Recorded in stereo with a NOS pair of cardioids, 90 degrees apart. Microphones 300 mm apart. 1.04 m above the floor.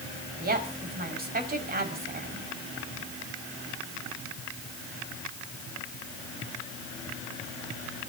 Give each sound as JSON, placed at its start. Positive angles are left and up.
{"t": 0.4, "sound": "a woman speaking", "azimuth_deg": -30, "distance_m": 5.5}